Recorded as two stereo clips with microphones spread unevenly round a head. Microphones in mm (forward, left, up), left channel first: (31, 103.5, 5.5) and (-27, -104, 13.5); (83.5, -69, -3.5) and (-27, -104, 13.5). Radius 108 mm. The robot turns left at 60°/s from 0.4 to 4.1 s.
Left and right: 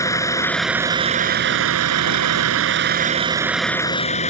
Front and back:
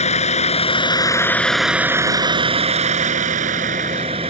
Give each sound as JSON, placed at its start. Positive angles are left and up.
{"t": 0.0, "sound": "a vehicle", "azimuth_deg": 0}